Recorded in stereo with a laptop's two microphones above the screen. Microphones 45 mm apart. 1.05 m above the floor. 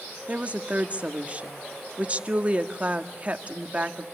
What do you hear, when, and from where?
0.3 s a woman speaking: 30° right (ahead or behind), 1.7 m